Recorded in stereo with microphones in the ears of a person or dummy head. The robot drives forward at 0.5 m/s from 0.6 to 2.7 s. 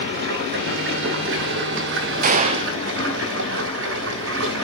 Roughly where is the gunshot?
Right.